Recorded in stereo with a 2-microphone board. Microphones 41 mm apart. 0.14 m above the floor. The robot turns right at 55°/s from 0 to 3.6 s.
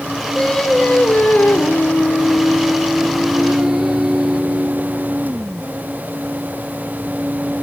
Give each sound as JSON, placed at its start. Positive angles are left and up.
{"t": 0.3, "sound": "singing", "azimuth_deg": 15, "distance_m": 2.0}